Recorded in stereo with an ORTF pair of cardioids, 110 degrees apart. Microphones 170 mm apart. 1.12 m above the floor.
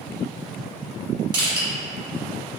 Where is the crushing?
25° right, 1.7 m.